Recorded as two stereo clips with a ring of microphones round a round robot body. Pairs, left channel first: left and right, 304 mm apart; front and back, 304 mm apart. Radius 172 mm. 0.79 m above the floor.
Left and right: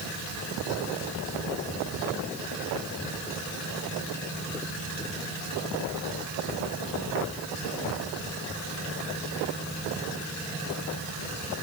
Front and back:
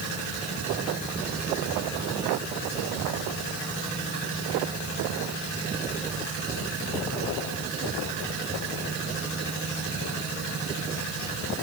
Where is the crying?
No crying in this recording.